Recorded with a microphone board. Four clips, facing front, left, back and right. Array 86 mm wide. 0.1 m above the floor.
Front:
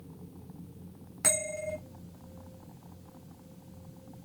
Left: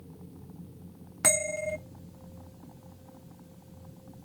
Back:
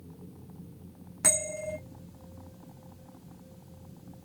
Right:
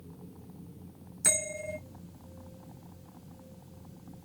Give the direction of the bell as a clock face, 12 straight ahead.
9 o'clock.